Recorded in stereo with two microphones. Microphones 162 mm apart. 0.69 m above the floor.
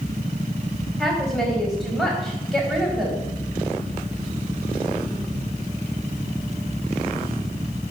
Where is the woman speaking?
5° left (ahead or behind), 4.5 m.